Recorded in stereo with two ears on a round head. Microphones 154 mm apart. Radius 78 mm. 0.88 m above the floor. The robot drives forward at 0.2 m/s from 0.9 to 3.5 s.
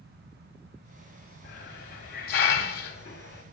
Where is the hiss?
55° left (ahead or behind), 1.4 m; by 3.4 s 65° left (ahead or behind), 1.3 m.